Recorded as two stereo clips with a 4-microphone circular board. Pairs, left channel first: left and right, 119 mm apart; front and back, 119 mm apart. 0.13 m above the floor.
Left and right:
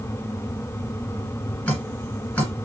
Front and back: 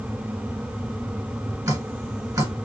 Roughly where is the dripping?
Behind left.